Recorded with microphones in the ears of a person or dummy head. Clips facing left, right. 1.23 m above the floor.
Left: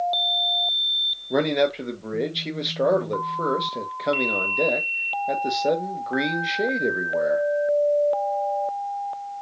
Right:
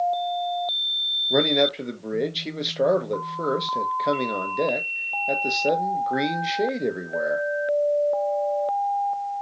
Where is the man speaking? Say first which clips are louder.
Even; 5° right (ahead or behind), 1.1 m.